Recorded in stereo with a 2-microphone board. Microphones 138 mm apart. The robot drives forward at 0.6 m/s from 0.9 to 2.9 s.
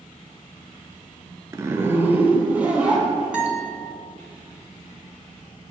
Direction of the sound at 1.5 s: 25° right (ahead or behind).